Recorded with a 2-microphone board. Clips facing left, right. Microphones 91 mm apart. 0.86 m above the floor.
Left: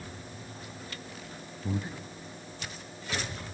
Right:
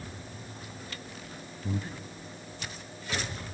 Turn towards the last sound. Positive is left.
turn(degrees=20)  # may be behind; listen again after turning